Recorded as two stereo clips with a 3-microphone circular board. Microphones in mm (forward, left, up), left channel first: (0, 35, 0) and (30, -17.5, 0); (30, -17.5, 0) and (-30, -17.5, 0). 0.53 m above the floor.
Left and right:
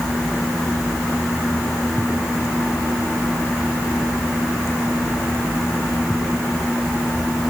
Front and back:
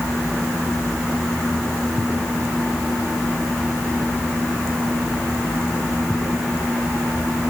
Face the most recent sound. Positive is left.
No sound to turn to.